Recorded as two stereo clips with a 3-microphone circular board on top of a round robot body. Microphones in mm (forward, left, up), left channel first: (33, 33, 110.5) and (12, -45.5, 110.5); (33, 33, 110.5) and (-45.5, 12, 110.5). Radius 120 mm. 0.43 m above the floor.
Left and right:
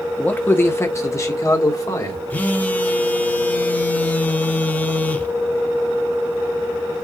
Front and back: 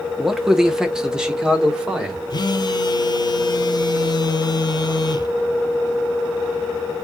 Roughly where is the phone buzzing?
Ahead.